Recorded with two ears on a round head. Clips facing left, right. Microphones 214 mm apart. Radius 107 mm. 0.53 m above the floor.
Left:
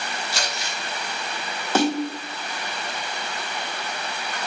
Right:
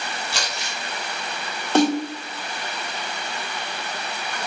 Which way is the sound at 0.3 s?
50° right (ahead or behind).